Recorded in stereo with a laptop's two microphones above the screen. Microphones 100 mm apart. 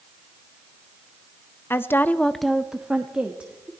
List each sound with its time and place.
1.7 s a woman speaking: 20° left (ahead or behind), 0.7 m; by 3.7 s 10° right (ahead or behind), 2 m